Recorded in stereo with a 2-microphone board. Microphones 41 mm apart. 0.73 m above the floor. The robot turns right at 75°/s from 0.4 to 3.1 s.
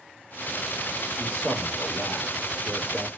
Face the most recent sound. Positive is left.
turn(degrees=170)